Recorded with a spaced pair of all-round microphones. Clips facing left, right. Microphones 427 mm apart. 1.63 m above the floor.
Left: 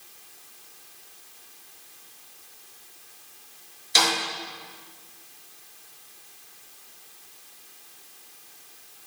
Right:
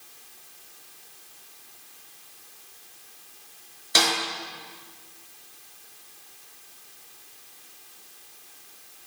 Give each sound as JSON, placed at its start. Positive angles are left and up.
{"t": 4.0, "sound": "a snare drum", "side_deg": -70, "distance_m": 5.5}